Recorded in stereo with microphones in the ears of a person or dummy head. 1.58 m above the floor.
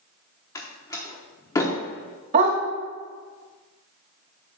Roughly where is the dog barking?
Right.